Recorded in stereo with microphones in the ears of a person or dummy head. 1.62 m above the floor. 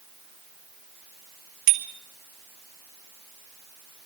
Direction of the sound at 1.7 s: 55° right (ahead or behind).